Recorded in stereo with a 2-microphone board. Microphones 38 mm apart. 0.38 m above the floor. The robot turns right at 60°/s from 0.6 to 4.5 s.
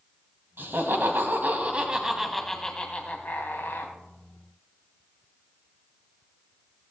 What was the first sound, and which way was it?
Laughter, 105° right.